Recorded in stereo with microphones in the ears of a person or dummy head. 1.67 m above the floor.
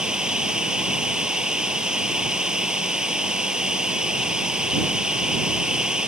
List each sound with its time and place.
0.0 s running water: 5° right (ahead or behind)